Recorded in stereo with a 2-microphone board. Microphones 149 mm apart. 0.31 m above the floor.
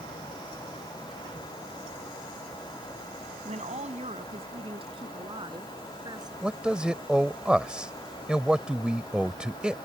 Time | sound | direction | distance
3.5 | a woman speaking | 55° right (ahead or behind) | ?
6.4 | a man speaking | 5° right (ahead or behind) | ?